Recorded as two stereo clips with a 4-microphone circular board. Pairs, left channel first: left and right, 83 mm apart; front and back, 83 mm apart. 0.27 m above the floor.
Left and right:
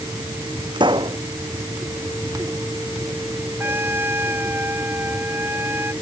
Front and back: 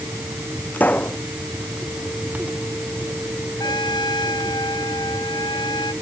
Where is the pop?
70° right.